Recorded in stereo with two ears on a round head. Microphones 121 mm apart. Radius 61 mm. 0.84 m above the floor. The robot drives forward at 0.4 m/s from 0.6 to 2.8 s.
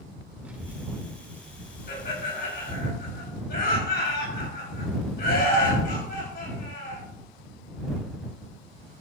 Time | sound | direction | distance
0.5 | a child speaking | 10° right (ahead or behind) | 2 m
1.9 | laughter | 65° left (ahead or behind) | 6 m